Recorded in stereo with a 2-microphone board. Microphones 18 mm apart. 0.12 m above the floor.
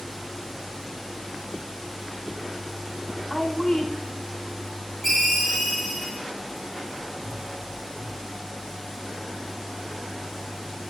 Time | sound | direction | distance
3.3 | a woman speaking | 40° right (ahead or behind) | 5 m
5.0 | a ringtone | 5° right (ahead or behind) | 6.5 m